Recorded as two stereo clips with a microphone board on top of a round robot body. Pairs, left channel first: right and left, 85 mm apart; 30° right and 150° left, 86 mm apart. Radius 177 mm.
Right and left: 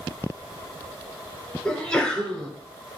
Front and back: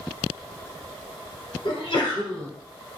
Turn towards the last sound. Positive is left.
turn(degrees=-15)